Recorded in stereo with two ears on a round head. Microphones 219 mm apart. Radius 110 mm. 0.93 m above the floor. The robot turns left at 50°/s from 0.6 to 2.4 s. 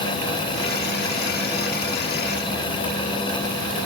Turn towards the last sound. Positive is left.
No sound to turn to.